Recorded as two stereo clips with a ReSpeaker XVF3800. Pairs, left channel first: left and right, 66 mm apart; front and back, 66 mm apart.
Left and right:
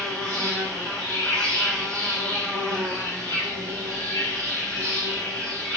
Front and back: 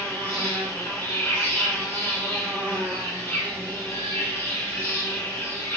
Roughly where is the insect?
Ahead.